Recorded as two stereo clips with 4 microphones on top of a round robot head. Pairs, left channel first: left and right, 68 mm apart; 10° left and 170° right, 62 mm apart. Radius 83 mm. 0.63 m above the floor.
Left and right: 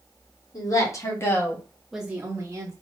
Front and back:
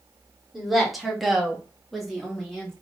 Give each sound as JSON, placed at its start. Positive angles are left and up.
{"t": 0.5, "sound": "a woman speaking", "azimuth_deg": 100, "distance_m": 2.0}